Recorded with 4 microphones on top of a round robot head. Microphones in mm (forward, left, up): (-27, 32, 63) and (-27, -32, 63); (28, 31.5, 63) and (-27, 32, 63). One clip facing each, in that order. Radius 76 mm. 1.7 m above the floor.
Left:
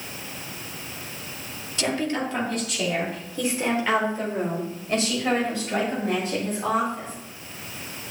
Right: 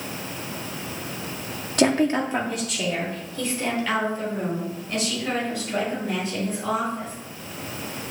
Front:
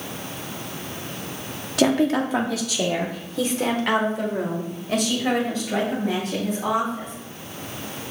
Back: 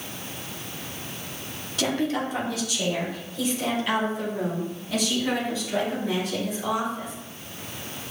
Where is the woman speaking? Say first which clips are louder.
Right 6 dB, front 6 dB; 45° right, 0.8 m; by 7.1 s 40° left, 4 m.